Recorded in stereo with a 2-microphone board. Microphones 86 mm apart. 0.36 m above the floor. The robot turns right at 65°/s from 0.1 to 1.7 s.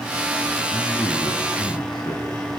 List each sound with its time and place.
0.7 s a man speaking: 25° left, 3.5 m; by 2.6 s 90° left, 3.5 m